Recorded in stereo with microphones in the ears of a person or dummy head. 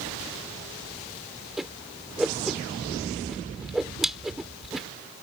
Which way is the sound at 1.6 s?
Centre (ahead or behind).